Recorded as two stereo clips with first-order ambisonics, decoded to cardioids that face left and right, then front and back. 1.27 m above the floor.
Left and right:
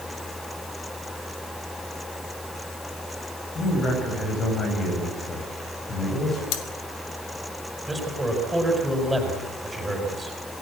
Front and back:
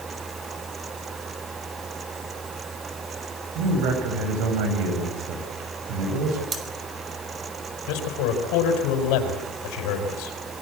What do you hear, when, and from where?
3.5 s a man speaking: 155° left, 7.5 m
6.5 s cutlery clinking: 105° left, 2.5 m
7.9 s a man speaking: 5° right, 5.5 m